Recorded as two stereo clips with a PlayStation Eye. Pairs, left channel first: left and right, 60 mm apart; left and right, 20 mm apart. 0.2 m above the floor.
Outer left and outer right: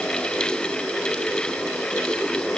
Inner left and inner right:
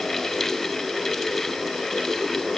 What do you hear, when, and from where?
Only background noise.